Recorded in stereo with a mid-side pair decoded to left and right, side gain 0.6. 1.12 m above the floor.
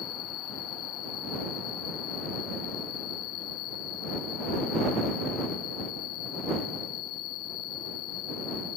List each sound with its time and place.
0.0 s an insect: 70° left